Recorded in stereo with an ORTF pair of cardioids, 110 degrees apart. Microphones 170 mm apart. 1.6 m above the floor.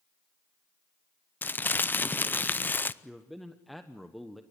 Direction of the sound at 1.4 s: 10° left.